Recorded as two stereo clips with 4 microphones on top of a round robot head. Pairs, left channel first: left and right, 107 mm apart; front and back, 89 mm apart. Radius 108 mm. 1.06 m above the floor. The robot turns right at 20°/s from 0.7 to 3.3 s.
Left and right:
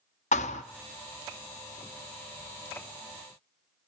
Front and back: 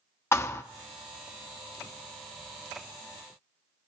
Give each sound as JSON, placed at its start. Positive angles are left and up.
{"t": 0.3, "sound": "a thud", "azimuth_deg": 55, "distance_m": 0.7}